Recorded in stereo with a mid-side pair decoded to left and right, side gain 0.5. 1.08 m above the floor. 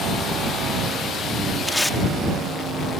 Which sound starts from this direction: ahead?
Tape being pulled, at 1.7 s.